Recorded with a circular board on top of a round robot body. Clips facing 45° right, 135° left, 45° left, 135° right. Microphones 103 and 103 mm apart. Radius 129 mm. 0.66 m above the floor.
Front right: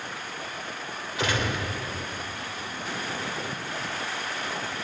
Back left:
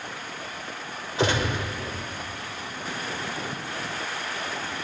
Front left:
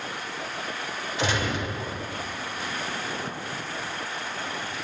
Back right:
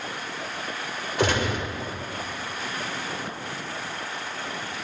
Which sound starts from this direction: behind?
A gunshot, at 1.2 s.